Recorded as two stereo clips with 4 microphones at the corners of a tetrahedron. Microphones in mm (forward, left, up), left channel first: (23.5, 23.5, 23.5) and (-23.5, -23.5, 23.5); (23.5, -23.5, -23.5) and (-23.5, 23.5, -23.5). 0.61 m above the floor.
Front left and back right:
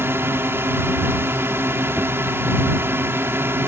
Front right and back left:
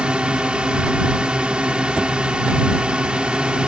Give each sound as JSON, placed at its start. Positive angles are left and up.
{"t": 0.0, "sound": "a drone", "azimuth_deg": -160}